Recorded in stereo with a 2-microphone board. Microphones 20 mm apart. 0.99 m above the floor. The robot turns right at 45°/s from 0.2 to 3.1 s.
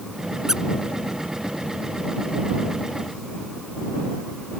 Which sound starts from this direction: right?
A squeak, at 0.5 s.